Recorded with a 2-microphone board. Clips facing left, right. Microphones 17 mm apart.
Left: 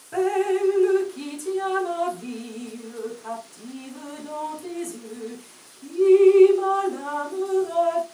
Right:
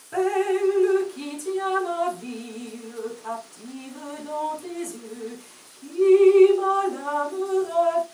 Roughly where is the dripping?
Centre.